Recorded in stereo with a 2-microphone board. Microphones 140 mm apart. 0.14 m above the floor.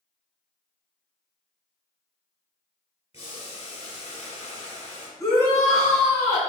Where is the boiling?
50° left (ahead or behind), 1.1 m.